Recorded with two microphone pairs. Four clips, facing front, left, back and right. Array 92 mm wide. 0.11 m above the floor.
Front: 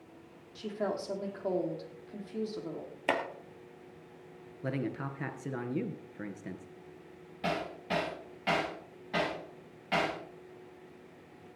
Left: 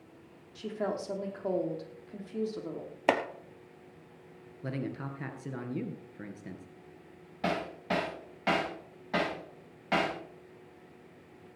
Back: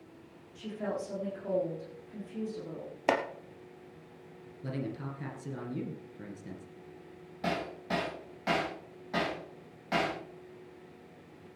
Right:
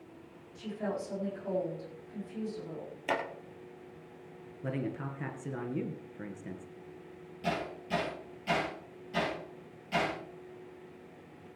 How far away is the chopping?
About 1.6 m.